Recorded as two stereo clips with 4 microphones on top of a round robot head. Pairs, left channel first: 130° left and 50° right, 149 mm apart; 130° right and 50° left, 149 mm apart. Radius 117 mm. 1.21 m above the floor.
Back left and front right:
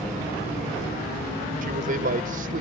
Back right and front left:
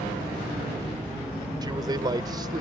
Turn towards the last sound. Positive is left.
turn(degrees=-15)